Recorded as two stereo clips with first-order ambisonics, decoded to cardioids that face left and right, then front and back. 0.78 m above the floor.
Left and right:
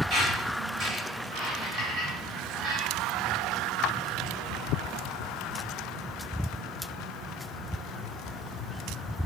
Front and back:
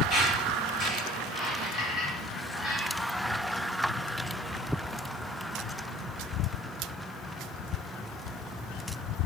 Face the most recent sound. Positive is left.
turn(degrees=-50)